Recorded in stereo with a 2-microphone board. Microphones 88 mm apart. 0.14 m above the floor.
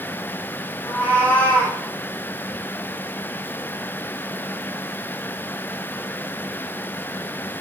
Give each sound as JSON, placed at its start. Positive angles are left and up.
{"t": 0.8, "sound": "a cat meowing", "side_deg": 20, "distance_m": 3.0}